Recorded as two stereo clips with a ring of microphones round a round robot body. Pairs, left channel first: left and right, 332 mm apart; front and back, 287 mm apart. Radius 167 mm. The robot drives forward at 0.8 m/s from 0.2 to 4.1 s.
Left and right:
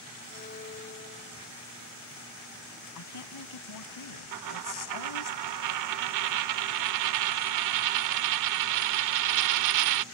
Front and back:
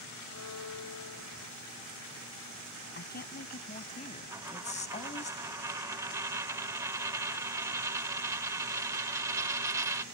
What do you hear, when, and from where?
0.3 s a violin: 20° left; by 1.5 s 25° left
3.0 s a woman speaking: 55° left; by 5.3 s 65° left
4.3 s a dropped coin: 100° right